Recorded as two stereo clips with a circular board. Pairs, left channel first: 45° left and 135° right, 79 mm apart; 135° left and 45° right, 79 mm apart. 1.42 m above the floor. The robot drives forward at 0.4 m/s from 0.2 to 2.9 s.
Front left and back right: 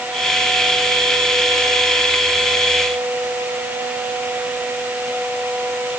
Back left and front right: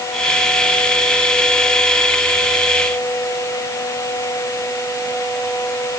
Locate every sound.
Only background noise.